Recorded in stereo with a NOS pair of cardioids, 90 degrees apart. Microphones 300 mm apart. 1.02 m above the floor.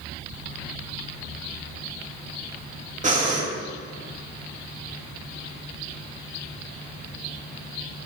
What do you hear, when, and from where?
3.0 s breathing: 25° right, 1.8 m